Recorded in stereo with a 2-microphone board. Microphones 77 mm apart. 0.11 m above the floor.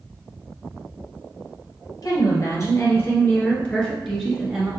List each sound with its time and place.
2.0 s a woman speaking: 45° left (ahead or behind), 1.9 m; by 4.7 s 15° right (ahead or behind), 1.5 m